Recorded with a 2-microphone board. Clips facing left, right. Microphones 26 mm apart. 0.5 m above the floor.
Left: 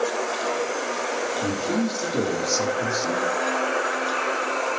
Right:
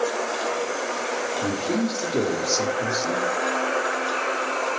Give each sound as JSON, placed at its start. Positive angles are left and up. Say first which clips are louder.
{"t": 1.4, "sound": "a man speaking", "louder": "right 1 dB", "side_deg": -15, "distance_m": 1.1}